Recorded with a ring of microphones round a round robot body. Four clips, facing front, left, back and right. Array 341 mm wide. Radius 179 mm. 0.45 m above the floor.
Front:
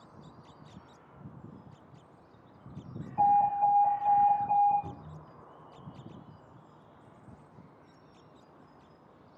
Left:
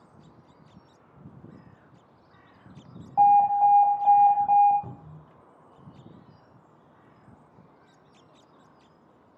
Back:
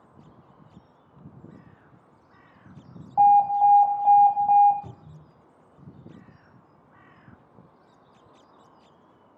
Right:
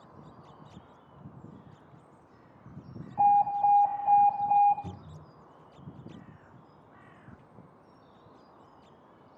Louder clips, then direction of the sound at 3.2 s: Left 5 dB, back 7 dB; 140° left.